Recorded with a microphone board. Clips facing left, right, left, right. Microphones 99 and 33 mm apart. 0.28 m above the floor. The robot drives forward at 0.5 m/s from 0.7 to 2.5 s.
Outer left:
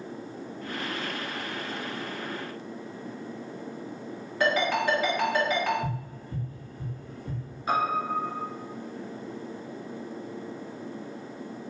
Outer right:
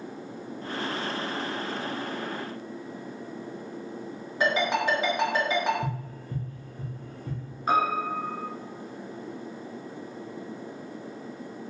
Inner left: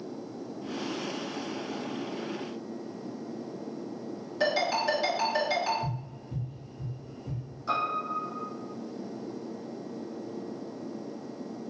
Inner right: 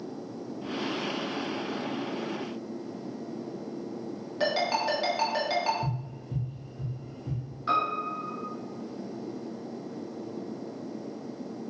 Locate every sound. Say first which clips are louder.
4.4 s a ringtone: even, even; 15° right (ahead or behind), 1.9 m
5.8 s tapping: even, inner right 1 dB; 65° right (ahead or behind), 2.0 m
7.7 s a piano: outer right 2 dB, inner right 2 dB; 40° right (ahead or behind), 1.5 m